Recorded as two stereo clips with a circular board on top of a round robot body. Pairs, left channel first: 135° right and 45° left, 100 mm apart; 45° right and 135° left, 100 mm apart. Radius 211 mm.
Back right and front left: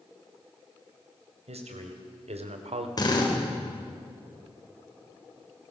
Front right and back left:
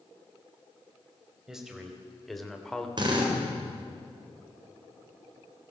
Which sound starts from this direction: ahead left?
A man speaking, at 1.5 s.